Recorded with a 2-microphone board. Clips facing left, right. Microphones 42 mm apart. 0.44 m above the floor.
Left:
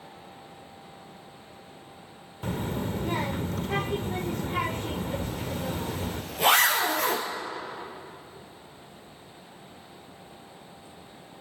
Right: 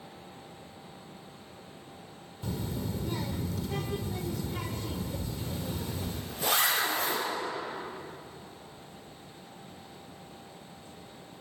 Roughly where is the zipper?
Left.